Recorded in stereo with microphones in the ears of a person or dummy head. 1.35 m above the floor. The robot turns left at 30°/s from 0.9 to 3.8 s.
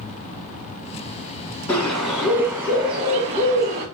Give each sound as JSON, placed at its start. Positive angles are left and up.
{"t": 1.7, "sound": "a bird", "azimuth_deg": 10, "distance_m": 1.1}